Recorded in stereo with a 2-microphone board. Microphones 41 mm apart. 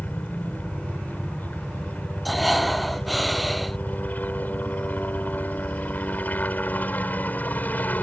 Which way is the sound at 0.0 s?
45° left (ahead or behind).